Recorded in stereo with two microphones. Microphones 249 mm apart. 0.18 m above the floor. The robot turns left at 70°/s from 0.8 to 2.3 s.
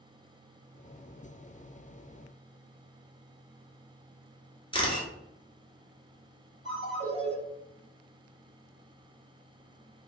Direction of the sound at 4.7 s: 20° left (ahead or behind).